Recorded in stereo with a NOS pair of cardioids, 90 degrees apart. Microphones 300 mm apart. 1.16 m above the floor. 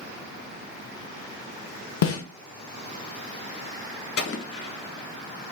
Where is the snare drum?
50° left, 0.8 m.